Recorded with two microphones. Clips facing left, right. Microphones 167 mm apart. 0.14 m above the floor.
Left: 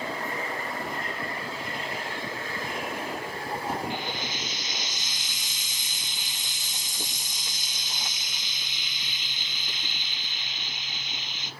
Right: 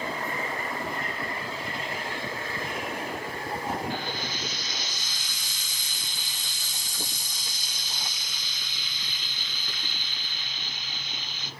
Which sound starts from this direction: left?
Frying, at 3.9 s.